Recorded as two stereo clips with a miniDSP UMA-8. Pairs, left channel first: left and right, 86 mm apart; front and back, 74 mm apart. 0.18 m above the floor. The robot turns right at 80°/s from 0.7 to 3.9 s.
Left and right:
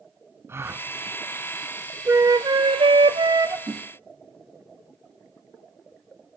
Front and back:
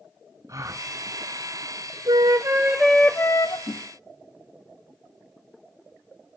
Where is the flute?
155° right, 0.8 m; by 3.6 s 35° right, 0.8 m.